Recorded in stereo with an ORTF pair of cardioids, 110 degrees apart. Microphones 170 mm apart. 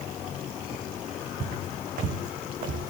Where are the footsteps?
65° right, 4.5 m; by 2.9 s 60° right, 3 m.